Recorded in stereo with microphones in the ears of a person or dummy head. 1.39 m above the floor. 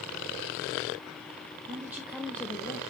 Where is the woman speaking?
15° right (ahead or behind), 0.9 m; by 2.8 s 25° left (ahead or behind), 0.9 m.